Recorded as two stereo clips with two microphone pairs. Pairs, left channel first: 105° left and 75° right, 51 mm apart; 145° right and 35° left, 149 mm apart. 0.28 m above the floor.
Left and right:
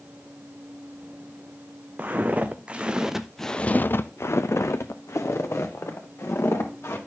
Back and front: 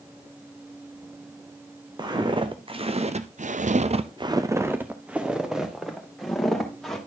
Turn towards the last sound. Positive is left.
turn(degrees=125)